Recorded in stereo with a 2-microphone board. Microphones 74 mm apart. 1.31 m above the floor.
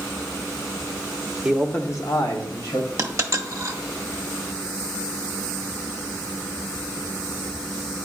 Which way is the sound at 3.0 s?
40° right (ahead or behind).